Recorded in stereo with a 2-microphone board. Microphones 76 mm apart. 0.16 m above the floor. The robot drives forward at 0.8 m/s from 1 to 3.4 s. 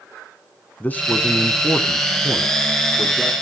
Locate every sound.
0.8 s a man speaking: 25° left (ahead or behind), 1.1 m; by 3.3 s 15° left (ahead or behind), 2 m